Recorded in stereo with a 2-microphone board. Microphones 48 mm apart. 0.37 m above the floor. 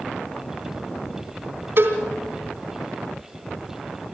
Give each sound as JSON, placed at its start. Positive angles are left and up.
{"t": 1.8, "sound": "a cowbell", "side_deg": -50, "distance_m": 3.0}